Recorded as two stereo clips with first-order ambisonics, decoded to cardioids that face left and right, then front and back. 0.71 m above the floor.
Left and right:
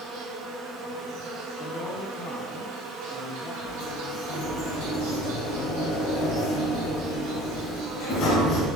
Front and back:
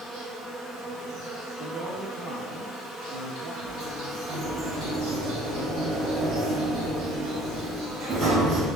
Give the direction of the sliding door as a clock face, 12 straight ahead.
8 o'clock.